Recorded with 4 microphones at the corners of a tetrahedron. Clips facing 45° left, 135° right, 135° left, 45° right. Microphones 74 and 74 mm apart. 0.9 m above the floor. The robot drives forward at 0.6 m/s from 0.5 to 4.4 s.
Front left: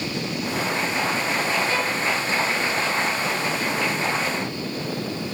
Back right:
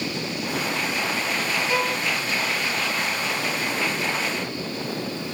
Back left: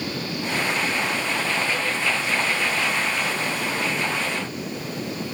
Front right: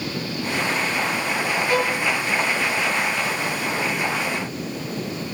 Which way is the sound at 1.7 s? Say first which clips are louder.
Even, front right 5 dB; 60° right.